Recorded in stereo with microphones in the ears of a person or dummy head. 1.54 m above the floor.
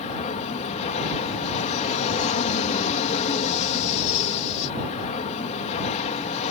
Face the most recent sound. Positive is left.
turn(degrees=40)  # may be behind; listen again after turning